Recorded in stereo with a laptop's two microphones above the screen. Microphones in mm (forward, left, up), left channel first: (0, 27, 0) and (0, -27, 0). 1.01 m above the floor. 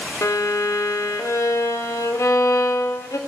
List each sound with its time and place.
0.2 s a violin: 80° left, 0.7 m